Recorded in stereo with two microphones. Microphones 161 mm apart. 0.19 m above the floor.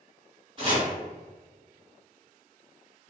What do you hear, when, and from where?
0.6 s chopping: 35° right (ahead or behind), 1.6 m